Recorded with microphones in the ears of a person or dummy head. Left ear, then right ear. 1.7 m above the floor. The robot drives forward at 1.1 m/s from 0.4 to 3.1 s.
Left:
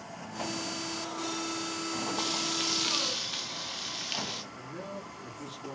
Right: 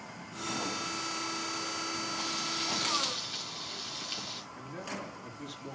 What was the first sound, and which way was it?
Frying, 30° left (ahead or behind).